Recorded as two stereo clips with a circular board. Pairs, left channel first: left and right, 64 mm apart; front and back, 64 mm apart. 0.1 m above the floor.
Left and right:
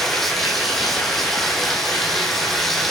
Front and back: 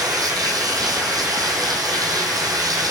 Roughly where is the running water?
Behind.